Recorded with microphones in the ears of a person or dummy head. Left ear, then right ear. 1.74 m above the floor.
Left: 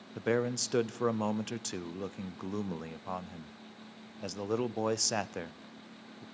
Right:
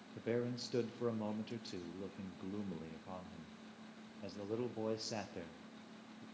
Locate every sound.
0.1 s a man speaking: 55° left (ahead or behind), 0.6 m